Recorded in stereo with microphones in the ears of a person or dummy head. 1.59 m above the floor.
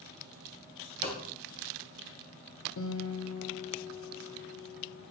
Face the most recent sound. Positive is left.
turn(degrees=75)  # may be behind; listen again after turning